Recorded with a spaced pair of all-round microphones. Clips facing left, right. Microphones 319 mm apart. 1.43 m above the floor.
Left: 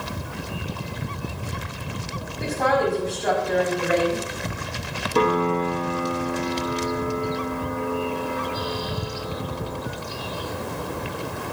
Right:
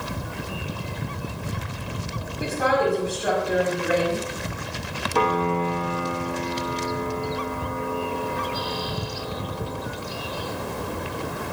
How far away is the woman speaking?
About 5.5 m.